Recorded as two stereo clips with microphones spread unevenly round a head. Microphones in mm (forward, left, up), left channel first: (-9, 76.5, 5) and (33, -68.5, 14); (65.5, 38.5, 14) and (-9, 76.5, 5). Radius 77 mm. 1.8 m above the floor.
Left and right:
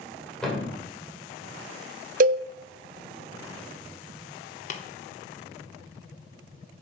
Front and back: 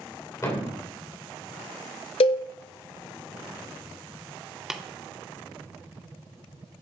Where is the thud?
20° left, 3 m.